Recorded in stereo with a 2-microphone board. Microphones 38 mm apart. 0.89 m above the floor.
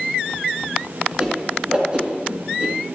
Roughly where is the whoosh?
Right.